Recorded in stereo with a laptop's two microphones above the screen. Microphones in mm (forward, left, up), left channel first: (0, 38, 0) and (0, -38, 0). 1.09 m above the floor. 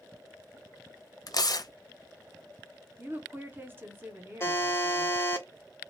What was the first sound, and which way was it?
Tearing paper, 55° left (ahead or behind).